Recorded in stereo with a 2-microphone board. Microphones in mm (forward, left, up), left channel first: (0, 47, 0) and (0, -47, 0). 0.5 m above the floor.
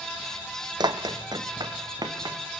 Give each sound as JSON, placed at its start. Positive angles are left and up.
{"t": 0.8, "sound": "running footsteps", "side_deg": -50, "distance_m": 1.3}